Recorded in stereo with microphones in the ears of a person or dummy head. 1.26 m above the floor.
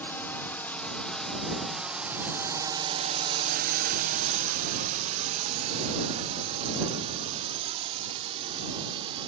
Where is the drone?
10° left (ahead or behind); by 9.3 s 30° right (ahead or behind).